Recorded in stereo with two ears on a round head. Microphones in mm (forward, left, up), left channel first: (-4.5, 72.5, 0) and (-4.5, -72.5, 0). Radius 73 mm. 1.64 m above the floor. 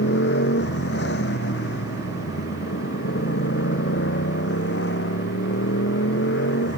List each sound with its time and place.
0.0 s a motorcycle: 75° left (ahead or behind); by 6.8 s 80° left